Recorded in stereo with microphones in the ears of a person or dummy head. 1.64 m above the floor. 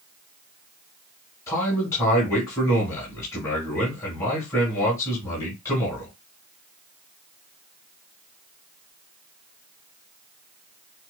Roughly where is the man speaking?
Centre.